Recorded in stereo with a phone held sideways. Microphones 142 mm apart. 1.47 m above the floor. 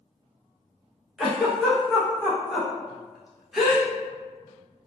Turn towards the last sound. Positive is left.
turn(degrees=-5)  # may be behind; listen again after turning